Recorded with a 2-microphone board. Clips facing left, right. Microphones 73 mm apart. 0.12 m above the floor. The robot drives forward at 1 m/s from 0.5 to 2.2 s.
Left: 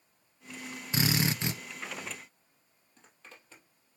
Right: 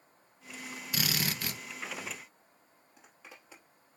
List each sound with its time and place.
0.9 s a drill: 30° left (ahead or behind), 1.2 m; by 1.6 s 25° left (ahead or behind), 1.5 m
3.0 s a zipper: 10° right (ahead or behind), 3 m